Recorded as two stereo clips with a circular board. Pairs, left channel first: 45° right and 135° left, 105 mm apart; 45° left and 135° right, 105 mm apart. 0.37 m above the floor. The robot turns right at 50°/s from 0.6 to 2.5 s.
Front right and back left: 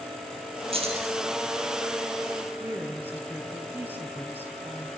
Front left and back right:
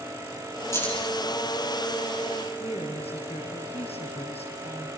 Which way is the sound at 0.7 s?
110° left.